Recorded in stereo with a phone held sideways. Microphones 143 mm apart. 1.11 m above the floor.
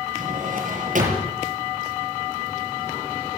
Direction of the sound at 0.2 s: 70° right (ahead or behind).